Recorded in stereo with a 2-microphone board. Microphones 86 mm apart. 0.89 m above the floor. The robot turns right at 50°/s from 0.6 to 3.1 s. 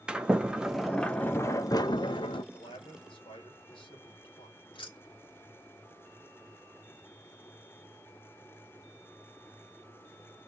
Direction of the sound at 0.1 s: 10° right.